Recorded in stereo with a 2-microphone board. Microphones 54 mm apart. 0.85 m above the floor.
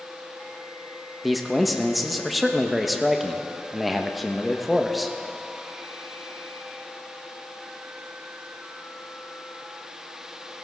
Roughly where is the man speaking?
Centre.